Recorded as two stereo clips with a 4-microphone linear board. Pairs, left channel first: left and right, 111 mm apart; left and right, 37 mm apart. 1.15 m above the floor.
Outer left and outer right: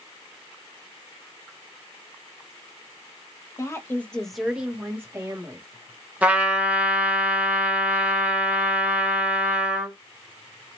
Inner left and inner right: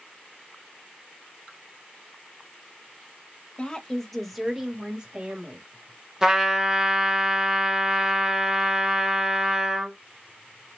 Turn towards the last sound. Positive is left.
turn(degrees=-15)  # may be behind; listen again after turning